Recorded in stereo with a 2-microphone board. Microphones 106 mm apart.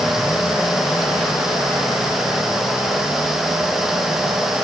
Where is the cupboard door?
No cupboard door in this recording.